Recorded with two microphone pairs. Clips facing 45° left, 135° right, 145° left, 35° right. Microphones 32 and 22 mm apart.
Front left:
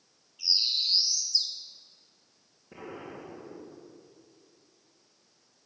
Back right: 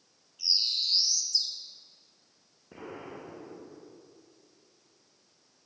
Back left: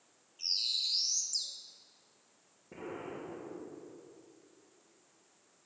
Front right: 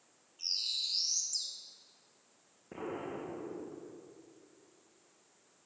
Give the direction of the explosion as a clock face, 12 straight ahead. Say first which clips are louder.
Even, front right 2 dB; 2 o'clock.